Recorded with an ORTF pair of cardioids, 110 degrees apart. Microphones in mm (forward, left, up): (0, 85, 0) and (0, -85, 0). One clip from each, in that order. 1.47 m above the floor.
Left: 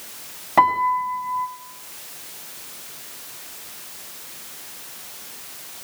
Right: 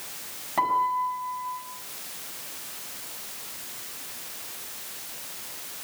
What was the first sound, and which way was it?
A piano, 60° left.